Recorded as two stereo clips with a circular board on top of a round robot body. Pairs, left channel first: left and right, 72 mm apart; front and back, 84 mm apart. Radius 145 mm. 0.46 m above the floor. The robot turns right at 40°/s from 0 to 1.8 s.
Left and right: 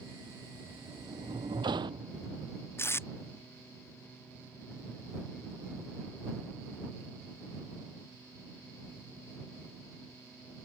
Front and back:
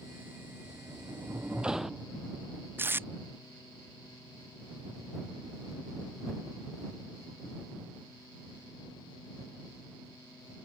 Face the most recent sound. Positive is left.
turn(degrees=125)